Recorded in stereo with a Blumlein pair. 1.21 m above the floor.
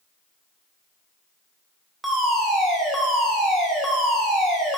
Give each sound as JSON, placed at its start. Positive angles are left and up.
{"t": 2.0, "sound": "a fire alarm", "azimuth_deg": -10, "distance_m": 3.0}